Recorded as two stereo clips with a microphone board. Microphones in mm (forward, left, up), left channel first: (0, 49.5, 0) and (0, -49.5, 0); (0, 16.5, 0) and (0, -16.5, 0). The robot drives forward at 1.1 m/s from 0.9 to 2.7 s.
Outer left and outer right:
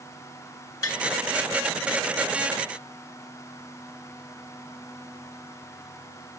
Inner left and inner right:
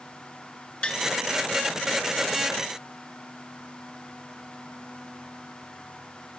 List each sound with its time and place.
0.8 s tapping: 35° left (ahead or behind), 1.4 m